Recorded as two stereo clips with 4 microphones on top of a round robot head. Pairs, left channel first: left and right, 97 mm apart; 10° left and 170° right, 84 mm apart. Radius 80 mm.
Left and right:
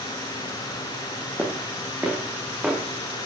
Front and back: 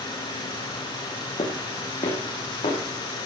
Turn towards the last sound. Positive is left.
turn(degrees=-10)